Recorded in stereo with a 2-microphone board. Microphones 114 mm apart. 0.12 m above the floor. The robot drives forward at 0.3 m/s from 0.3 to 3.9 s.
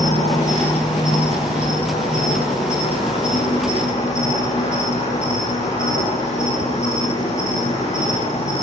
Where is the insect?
80° left, 5.5 m; by 8.6 s 75° left (ahead or behind), 5.5 m.